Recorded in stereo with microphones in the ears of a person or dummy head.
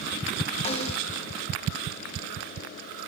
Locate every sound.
0.7 s a snare drum: 35° left (ahead or behind), 0.9 m